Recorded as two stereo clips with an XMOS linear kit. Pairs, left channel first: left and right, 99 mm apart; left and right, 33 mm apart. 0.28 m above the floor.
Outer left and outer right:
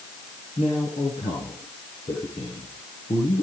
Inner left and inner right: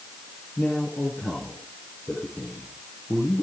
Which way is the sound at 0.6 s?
80° left.